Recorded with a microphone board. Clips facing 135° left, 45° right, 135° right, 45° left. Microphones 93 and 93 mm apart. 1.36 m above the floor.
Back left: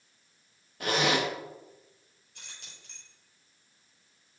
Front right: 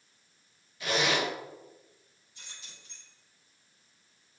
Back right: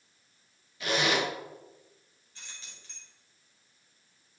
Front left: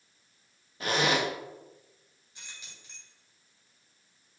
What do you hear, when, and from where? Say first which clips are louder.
0.8 s a zipper: back left 2 dB, front left 1 dB; 95° left, 2.0 m
2.4 s keys jangling: back left 1 dB, even; 120° left, 4.5 m